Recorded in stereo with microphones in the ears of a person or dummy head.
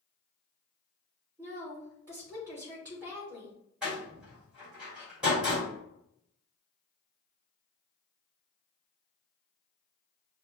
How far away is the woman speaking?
About 1.2 m.